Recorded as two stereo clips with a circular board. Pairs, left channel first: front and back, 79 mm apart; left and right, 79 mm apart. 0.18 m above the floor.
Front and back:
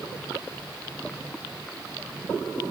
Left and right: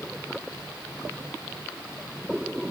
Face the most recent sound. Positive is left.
No sound to turn to.